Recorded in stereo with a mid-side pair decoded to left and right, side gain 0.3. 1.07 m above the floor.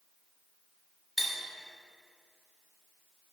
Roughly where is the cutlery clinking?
Ahead.